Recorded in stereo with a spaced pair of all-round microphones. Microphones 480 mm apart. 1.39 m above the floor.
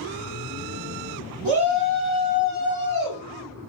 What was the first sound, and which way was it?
A shout, 70° right (ahead or behind).